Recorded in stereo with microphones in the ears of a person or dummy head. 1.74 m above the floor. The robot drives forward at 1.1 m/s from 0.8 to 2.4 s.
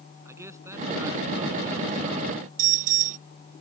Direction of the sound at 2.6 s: 45° right (ahead or behind).